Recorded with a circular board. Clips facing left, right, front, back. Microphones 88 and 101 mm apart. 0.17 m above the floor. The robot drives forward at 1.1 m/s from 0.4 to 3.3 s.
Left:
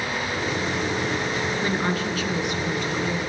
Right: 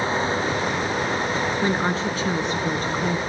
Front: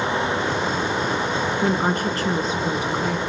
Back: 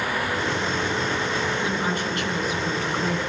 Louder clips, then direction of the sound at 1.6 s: Right 2 dB, front 5 dB; 25° right.